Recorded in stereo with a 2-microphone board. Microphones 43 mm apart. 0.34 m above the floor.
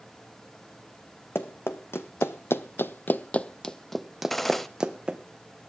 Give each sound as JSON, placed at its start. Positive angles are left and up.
{"t": 1.4, "sound": "running footsteps", "side_deg": 70, "distance_m": 1.4}
{"t": 4.3, "sound": "a gunshot", "side_deg": 5, "distance_m": 0.9}